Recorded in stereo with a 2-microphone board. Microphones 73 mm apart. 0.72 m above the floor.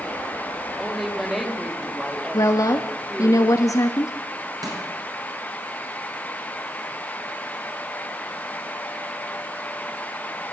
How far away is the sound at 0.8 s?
About 2.5 m.